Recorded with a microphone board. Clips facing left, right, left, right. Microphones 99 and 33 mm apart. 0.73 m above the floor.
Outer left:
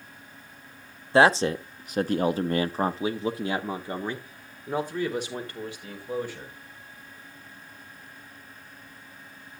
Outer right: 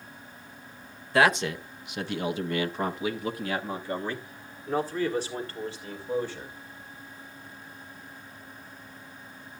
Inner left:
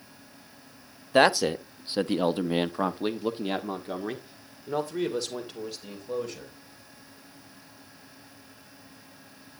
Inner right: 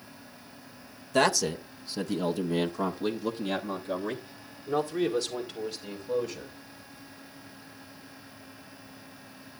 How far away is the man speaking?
About 0.9 m.